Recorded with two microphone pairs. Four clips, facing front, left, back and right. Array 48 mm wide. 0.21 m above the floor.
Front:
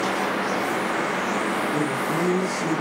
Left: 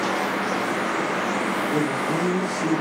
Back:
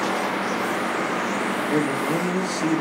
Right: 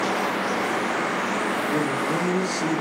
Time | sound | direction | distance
1.7 | a man speaking | 155° right | 4 m